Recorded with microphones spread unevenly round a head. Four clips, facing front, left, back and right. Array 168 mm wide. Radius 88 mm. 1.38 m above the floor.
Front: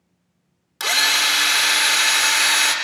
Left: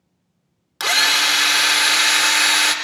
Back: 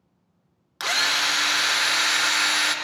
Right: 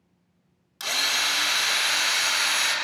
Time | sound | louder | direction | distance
0.8 | a drill | left 9 dB, front 3 dB | 90° left | 1.6 m